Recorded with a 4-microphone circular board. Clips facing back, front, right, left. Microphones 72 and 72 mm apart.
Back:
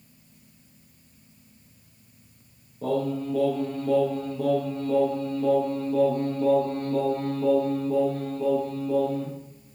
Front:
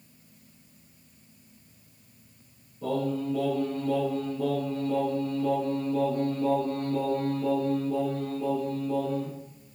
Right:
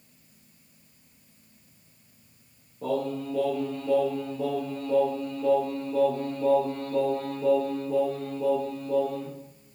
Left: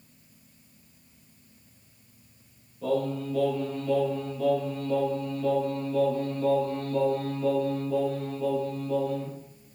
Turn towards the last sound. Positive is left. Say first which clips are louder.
# back 2 dB, left 1 dB
turn(degrees=-145)